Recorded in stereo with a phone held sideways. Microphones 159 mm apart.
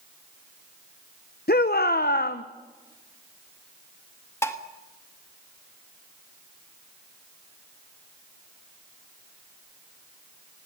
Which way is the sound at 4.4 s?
15° left (ahead or behind).